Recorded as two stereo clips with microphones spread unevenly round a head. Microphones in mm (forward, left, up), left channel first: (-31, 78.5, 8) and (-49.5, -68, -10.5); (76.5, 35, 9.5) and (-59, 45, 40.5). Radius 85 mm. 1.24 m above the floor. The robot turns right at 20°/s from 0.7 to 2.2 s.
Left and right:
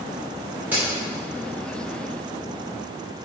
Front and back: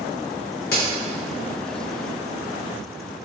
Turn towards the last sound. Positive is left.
turn(degrees=15)